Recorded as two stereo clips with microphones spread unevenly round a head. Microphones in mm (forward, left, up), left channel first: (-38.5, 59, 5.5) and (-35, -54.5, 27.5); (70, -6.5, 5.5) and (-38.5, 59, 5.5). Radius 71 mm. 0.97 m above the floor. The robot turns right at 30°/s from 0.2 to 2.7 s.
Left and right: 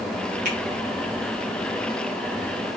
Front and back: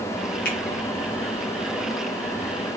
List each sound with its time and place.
0.5 s a finger snap: 55° right, 1.4 m; by 0.6 s 50° right, 1.4 m